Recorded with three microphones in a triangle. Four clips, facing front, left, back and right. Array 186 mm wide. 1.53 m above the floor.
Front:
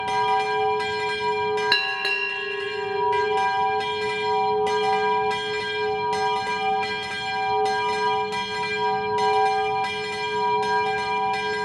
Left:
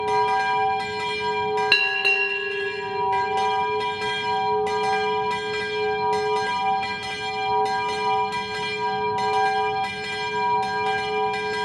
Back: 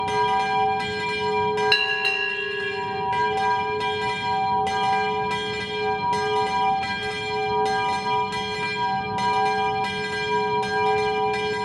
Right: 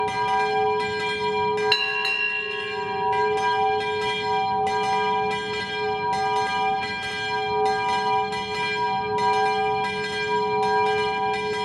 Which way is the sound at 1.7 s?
55° left.